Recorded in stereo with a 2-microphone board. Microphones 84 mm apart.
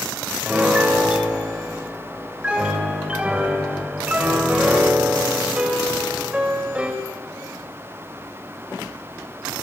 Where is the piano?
10° right (ahead or behind), 4.5 m.